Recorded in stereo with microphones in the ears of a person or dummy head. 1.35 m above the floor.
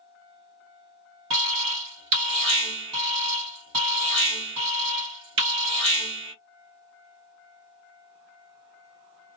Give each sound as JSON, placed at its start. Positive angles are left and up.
{"t": 1.3, "sound": "an alarm", "side_deg": -70, "distance_m": 1.8}